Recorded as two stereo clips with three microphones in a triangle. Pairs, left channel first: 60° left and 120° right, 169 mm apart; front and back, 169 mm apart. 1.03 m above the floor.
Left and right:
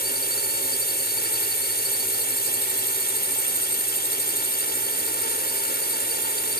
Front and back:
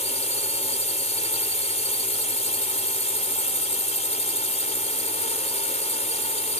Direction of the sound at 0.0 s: 50° left.